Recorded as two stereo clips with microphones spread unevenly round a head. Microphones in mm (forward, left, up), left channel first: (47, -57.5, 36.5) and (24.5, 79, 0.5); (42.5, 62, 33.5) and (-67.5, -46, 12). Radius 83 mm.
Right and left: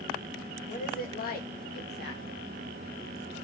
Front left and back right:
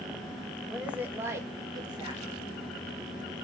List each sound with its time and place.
0.7 s a woman speaking: 50° right, 1.8 m; by 2.4 s 80° right, 2 m